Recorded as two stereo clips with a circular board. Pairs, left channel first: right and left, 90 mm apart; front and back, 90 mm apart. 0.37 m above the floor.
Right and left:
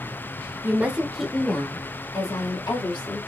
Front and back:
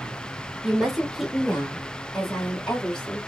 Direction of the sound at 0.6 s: 100° left.